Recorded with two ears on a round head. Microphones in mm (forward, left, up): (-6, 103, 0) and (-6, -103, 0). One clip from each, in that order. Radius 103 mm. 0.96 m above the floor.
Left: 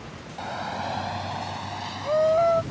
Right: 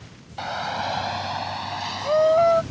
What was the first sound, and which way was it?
A shout, 40° right (ahead or behind).